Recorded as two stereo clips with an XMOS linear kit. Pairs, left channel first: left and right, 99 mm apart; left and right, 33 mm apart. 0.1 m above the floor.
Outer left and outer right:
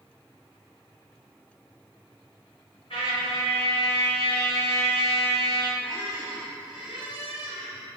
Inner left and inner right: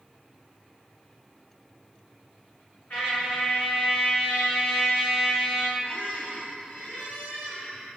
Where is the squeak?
60° left (ahead or behind), 1.7 m.